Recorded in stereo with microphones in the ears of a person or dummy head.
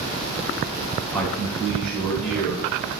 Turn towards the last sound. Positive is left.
turn(degrees=5)  # may be behind; listen again after turning